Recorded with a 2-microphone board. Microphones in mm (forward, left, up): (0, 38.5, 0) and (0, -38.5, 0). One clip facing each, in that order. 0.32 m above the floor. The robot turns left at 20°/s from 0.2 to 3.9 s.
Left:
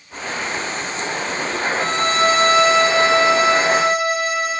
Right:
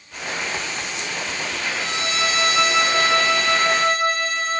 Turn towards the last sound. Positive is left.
turn(degrees=10)